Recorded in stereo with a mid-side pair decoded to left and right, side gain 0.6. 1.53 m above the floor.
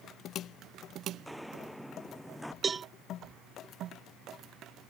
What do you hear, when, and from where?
1.1 s footsteps: straight ahead; by 2.5 s 5° left
2.6 s a cowbell: 30° right